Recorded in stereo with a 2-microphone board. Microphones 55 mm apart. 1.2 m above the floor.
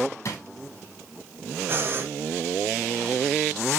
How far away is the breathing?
About 1.7 m.